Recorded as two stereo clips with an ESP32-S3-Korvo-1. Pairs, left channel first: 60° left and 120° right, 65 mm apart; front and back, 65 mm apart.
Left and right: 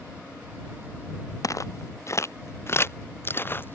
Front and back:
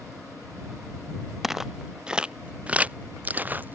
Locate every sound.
1.4 s footsteps: 95° left; by 3.8 s 120° left